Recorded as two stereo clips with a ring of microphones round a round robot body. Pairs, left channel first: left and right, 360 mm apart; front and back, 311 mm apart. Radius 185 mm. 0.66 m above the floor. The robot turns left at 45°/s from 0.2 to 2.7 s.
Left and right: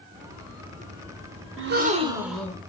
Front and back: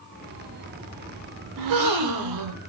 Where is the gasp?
145° right, 0.6 m; by 2.6 s 170° left, 0.6 m.